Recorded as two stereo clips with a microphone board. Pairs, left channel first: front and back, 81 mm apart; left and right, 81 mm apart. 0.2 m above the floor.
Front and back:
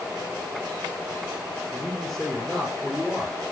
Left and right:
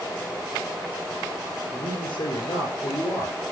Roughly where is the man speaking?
Left.